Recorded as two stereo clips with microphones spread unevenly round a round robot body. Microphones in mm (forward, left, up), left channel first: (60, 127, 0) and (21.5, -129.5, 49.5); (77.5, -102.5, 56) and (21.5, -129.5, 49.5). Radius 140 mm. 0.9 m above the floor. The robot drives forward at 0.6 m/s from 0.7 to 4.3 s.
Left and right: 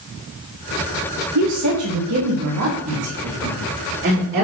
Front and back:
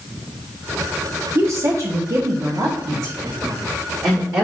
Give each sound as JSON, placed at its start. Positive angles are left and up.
{"t": 1.4, "sound": "a woman speaking", "azimuth_deg": -125, "distance_m": 1.2}